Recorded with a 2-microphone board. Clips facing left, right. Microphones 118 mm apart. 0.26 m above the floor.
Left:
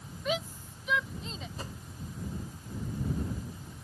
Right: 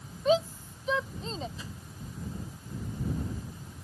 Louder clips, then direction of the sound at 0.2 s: Right 8 dB; 30° right (ahead or behind).